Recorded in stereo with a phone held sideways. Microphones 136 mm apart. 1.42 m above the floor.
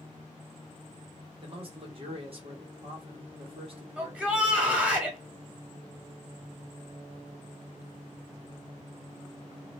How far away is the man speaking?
About 1.3 m.